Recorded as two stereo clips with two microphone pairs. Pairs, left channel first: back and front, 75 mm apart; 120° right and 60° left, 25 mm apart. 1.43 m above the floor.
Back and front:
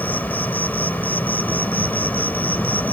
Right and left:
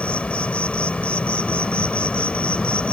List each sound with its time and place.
0.0 s an insect: 120° right